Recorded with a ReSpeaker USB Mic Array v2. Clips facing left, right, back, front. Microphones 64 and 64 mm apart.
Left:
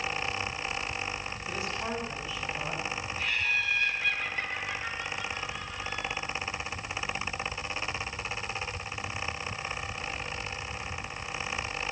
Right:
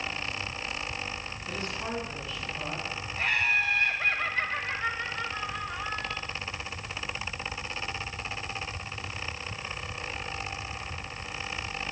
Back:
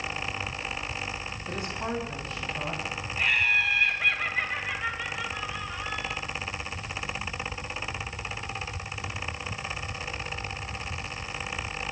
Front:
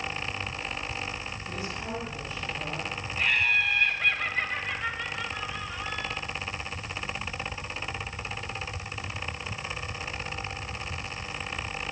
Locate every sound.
1.5 s a woman speaking: 170° left, 5.5 m
3.2 s laughter: 95° right, 1.6 m